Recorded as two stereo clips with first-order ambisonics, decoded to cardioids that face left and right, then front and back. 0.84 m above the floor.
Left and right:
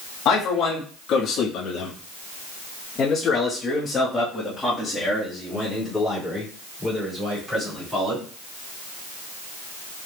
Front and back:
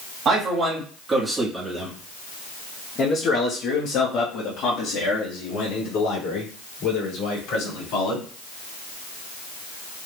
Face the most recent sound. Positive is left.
turn(degrees=-10)